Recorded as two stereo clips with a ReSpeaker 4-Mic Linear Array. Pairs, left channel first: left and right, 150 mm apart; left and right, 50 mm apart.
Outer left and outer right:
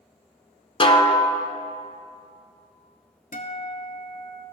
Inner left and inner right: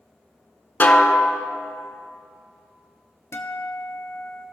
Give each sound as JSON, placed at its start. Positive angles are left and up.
{"t": 0.8, "sound": "a snare drum", "side_deg": 40, "distance_m": 0.7}
{"t": 3.3, "sound": "a guitar", "side_deg": 65, "distance_m": 0.9}